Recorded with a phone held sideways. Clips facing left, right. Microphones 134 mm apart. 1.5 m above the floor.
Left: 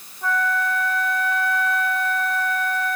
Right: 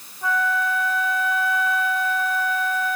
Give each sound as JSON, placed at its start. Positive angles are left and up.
{"t": 0.2, "sound": "a flute", "side_deg": -5}